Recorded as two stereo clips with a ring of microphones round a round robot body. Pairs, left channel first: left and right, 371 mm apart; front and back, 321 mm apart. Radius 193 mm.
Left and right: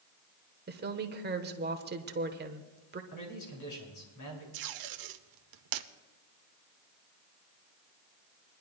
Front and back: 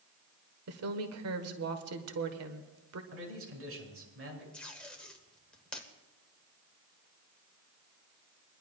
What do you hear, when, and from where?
0.7 s a woman speaking: 150° right, 1.2 m
3.1 s a man speaking: 135° left, 5.5 m
4.5 s tape being pulled: 85° right, 0.8 m